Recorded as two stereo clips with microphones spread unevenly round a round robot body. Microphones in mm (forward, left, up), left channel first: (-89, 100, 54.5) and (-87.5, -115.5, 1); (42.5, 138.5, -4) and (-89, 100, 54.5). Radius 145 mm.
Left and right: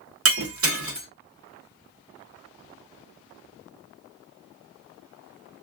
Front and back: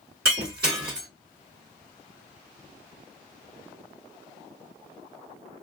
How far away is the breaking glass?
About 1.8 m.